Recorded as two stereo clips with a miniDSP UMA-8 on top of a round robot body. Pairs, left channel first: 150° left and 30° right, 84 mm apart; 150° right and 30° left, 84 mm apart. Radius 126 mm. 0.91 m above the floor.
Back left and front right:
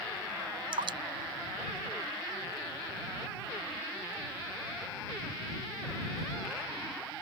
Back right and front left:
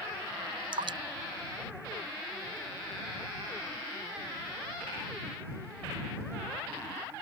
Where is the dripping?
Straight ahead.